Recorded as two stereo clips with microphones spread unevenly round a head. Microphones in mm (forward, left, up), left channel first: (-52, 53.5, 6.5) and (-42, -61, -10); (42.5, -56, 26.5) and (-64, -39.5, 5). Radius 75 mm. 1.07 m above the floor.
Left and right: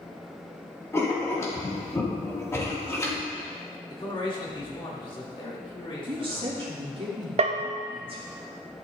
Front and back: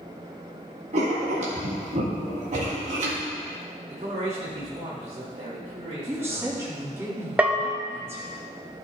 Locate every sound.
0.9 s writing: 160° left, 2 m
3.9 s a man speaking: 140° left, 2.5 m
6.1 s a woman speaking: 125° right, 2.5 m
7.4 s a bell: 105° right, 0.8 m